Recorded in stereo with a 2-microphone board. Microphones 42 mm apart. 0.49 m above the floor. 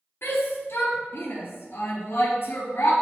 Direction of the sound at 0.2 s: 65° left (ahead or behind).